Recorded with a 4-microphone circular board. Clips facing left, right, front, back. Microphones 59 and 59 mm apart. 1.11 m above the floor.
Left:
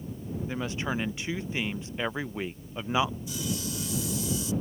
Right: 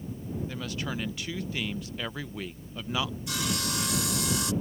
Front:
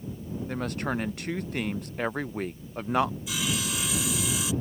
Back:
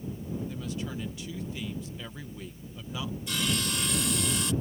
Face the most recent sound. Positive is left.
turn(degrees=-85)